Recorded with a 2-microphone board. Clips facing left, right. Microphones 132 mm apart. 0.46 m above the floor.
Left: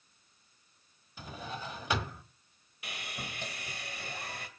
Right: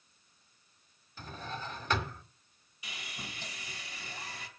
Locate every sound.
1.2 s a drawer: 10° left (ahead or behind), 1.6 m
2.8 s sawing: 60° left (ahead or behind), 2.5 m